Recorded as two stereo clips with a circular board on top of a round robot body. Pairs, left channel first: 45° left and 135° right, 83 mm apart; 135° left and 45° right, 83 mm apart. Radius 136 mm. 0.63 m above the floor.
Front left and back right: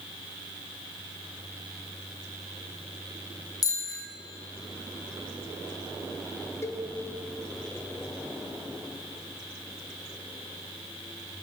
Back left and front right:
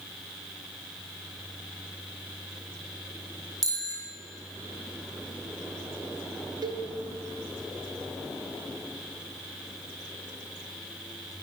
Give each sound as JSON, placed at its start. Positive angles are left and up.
{"t": 3.6, "sound": "a bicycle bell", "azimuth_deg": 5, "distance_m": 3.0}
{"t": 6.6, "sound": "a cowbell", "azimuth_deg": -10, "distance_m": 1.2}